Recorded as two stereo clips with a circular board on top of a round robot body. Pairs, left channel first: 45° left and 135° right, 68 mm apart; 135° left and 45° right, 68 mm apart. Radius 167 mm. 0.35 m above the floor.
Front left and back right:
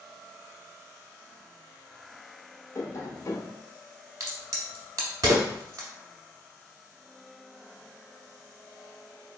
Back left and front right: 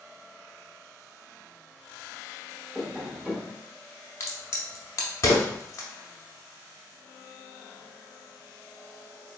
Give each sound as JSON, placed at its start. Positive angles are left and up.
{"t": 2.8, "sound": "tapping", "azimuth_deg": 35, "distance_m": 1.2}
{"t": 4.2, "sound": "a crack", "azimuth_deg": -175, "distance_m": 0.7}